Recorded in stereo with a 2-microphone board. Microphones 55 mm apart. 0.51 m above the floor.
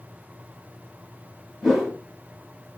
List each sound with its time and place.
1.6 s a whoosh: 10° right (ahead or behind), 1.2 m